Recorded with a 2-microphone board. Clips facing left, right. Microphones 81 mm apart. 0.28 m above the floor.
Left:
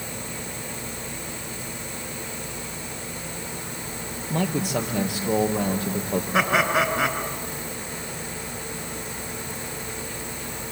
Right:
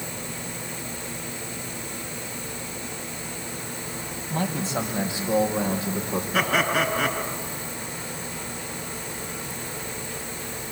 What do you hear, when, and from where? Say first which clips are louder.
4.3 s a man speaking: left 2 dB; 75° left (ahead or behind), 5 m; by 6.2 s 70° left (ahead or behind), 6 m
6.3 s laughter: left 2 dB; 25° left (ahead or behind), 4 m